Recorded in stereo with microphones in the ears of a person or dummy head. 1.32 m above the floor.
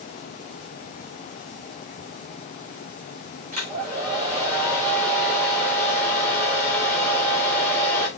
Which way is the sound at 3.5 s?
35° right (ahead or behind).